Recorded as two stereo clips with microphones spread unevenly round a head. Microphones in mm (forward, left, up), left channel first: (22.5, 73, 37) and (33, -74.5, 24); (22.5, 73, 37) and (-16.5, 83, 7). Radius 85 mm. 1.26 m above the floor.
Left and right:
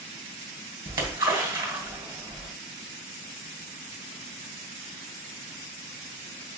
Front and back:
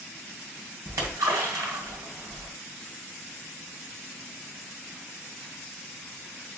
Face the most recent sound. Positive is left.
turn(degrees=-155)